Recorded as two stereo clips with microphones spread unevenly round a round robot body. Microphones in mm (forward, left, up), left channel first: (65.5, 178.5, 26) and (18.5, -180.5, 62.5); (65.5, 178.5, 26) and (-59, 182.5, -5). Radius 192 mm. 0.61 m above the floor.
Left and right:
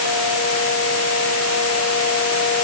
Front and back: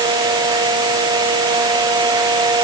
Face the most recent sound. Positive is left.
No sound to turn to.